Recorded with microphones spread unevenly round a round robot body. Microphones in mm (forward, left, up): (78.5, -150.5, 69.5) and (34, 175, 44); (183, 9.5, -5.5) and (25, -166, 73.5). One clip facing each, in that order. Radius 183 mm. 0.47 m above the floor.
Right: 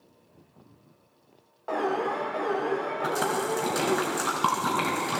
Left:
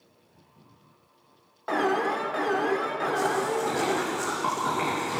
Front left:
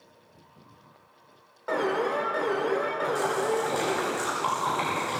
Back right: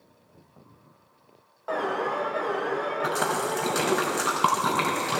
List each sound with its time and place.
1.7 s an alarm: 70° left, 1.8 m
3.0 s a splash: 125° right, 3 m